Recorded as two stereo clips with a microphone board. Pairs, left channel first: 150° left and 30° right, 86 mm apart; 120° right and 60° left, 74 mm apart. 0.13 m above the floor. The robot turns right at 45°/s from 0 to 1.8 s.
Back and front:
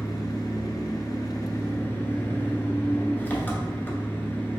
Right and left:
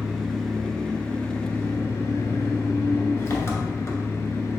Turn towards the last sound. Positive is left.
turn(degrees=-150)